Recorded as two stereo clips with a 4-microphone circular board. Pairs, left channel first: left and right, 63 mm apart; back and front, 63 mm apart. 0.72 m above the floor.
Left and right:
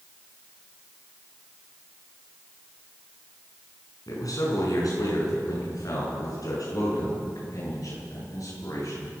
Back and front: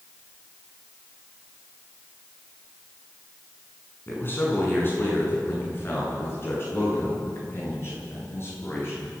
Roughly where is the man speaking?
Behind left.